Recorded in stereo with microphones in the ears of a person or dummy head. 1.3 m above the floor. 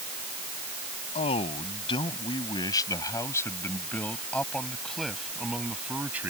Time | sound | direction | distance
1.1 | a man speaking | 35° left (ahead or behind) | ?